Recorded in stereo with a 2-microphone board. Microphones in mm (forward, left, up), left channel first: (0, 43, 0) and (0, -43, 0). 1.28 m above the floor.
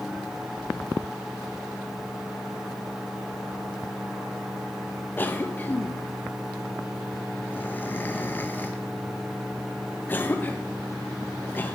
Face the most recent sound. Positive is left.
turn(degrees=20)  # may be behind; listen again after turning